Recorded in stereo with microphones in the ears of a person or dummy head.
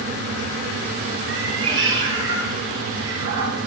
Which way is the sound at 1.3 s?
65° right (ahead or behind).